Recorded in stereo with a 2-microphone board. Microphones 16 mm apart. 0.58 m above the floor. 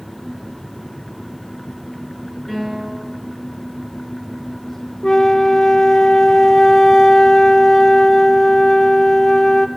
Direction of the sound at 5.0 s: 50° left (ahead or behind).